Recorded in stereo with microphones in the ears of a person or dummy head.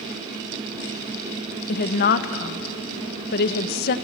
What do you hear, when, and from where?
1.7 s a woman speaking: 60° left (ahead or behind), 1.2 m